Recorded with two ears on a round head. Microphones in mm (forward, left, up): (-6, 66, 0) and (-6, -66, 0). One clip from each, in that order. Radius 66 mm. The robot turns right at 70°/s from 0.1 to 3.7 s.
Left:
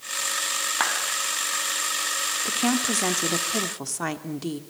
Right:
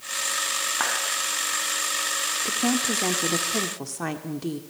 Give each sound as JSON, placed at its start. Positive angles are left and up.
{"t": 0.8, "sound": "a clap", "side_deg": 80, "distance_m": 4.0}
{"t": 2.5, "sound": "a woman speaking", "azimuth_deg": 50, "distance_m": 1.6}